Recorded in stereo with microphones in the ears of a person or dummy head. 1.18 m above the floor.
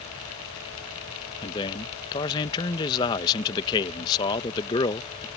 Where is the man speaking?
20° left (ahead or behind).